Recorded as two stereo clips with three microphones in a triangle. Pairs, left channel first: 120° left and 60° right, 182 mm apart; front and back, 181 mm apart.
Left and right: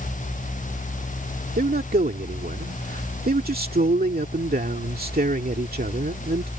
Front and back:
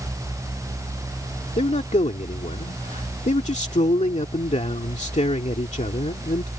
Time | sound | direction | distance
1.6 | a man speaking | 45° right | ?